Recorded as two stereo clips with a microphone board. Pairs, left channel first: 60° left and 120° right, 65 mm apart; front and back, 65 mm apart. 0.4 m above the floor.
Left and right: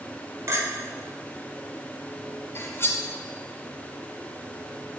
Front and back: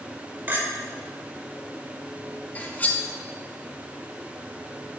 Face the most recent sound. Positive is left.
turn(degrees=50)